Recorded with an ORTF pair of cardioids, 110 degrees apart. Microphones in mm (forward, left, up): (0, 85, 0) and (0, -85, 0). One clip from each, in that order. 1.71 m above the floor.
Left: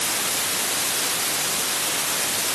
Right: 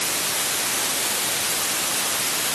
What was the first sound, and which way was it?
Only background noise.